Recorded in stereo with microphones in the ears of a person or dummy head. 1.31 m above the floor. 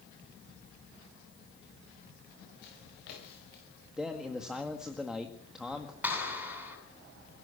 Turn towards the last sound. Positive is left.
turn(degrees=-10)  # may be behind; listen again after turning